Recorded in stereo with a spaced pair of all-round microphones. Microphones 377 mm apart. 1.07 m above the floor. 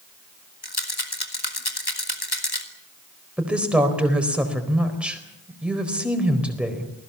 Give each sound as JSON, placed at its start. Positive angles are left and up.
{"t": 0.6, "sound": "a rattle", "side_deg": 80, "distance_m": 2.5}
{"t": 3.4, "sound": "a woman speaking", "side_deg": -5, "distance_m": 4.0}